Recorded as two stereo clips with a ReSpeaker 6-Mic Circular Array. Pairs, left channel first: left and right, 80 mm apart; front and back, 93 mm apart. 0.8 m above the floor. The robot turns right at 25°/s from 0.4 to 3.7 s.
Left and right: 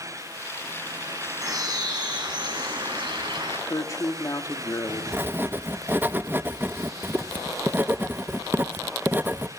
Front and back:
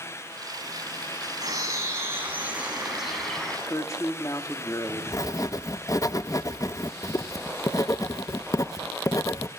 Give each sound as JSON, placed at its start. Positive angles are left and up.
{"t": 1.4, "sound": "a bird", "azimuth_deg": -135, "distance_m": 8.0}
{"t": 3.7, "sound": "a woman speaking", "azimuth_deg": 50, "distance_m": 1.9}
{"t": 5.1, "sound": "writing", "azimuth_deg": -35, "distance_m": 0.6}